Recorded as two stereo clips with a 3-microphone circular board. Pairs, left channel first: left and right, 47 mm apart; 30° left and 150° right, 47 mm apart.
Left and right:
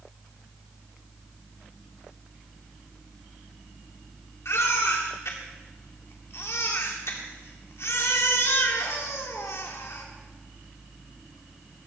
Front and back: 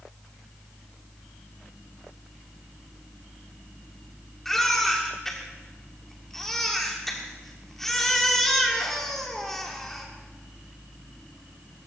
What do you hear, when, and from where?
4.5 s a baby crying: 115° left, 2.5 m